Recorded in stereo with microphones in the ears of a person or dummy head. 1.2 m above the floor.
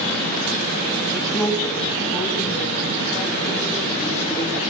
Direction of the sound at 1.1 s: Centre (ahead or behind).